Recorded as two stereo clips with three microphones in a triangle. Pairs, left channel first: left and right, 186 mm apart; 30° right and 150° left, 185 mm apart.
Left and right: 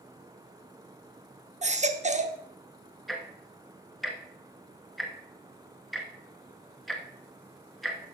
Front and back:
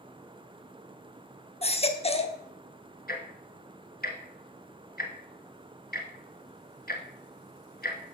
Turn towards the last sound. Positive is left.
turn(degrees=0)